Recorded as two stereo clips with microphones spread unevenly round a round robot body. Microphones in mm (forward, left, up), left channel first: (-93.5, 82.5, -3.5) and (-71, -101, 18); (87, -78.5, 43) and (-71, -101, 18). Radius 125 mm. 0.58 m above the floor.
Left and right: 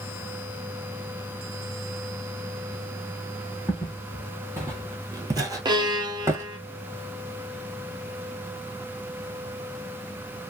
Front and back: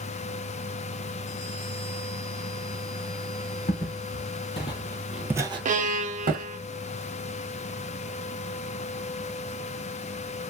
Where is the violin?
155° right, 0.7 m.